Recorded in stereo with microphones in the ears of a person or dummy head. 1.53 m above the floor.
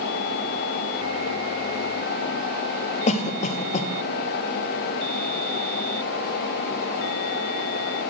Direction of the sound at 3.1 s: 40° left (ahead or behind).